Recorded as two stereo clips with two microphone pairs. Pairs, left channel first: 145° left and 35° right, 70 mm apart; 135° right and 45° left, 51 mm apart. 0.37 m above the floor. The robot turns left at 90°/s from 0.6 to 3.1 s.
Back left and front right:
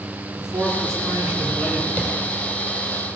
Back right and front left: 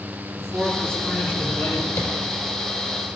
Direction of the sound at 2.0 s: 140° right.